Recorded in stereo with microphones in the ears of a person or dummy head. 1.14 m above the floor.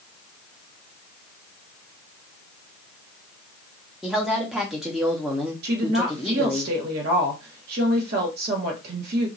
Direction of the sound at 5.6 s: 60° right (ahead or behind).